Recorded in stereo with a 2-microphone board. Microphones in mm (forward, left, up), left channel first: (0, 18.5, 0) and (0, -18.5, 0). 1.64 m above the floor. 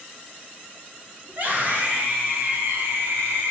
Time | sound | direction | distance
1.3 | a scream | 45° right (ahead or behind) | 2.5 m